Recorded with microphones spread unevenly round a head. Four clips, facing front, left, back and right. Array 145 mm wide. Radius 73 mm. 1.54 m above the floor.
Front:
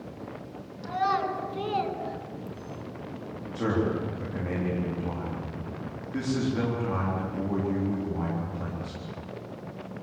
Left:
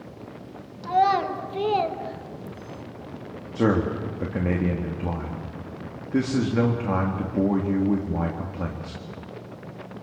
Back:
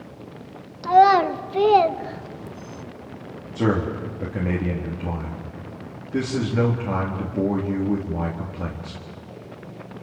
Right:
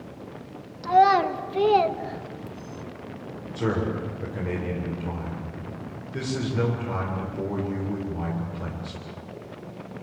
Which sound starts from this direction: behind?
A child speaking, at 0.8 s.